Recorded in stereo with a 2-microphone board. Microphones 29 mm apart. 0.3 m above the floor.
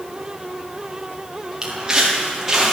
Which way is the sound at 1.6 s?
20° right (ahead or behind).